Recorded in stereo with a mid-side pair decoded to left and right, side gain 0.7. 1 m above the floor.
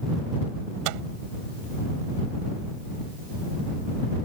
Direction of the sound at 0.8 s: 70° right.